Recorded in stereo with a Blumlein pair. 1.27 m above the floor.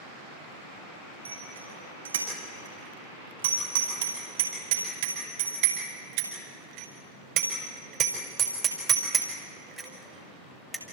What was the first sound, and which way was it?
A bicycle bell, 70° right.